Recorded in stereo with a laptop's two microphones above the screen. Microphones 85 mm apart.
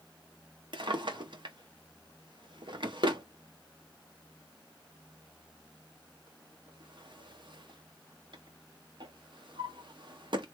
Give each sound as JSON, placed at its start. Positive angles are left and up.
{"t": 0.7, "sound": "a drawer", "side_deg": -70, "distance_m": 0.9}